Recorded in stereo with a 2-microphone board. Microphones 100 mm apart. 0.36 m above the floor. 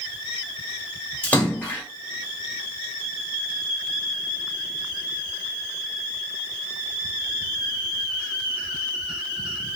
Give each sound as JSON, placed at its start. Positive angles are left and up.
{"t": 1.2, "sound": "a splash", "side_deg": 15, "distance_m": 1.1}